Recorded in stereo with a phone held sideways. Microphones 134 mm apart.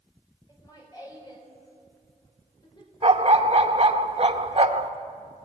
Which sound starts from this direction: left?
Laughter, at 0.5 s.